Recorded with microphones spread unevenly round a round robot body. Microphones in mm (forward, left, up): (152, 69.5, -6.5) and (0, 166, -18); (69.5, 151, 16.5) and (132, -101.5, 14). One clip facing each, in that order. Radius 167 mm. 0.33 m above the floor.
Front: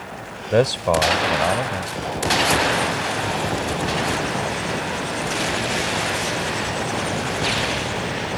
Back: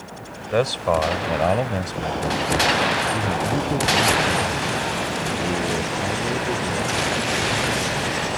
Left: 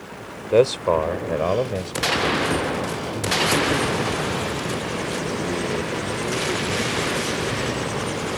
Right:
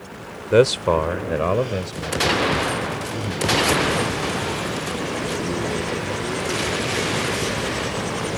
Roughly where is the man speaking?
Ahead right.